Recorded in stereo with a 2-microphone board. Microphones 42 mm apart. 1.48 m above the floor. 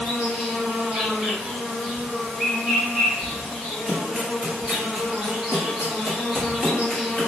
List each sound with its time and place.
0.0 s an insect: 15° right (ahead or behind), 1.5 m
3.9 s running footsteps: 25° right (ahead or behind), 1.7 m; by 7.3 s 10° right (ahead or behind), 1.8 m